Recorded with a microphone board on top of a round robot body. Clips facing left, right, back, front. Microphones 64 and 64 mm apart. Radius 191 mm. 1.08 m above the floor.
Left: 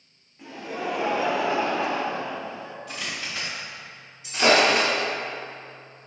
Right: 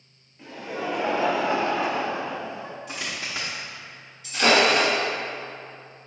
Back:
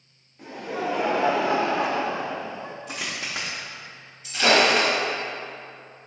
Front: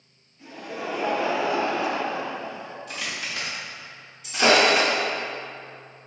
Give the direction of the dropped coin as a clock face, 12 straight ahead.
5 o'clock.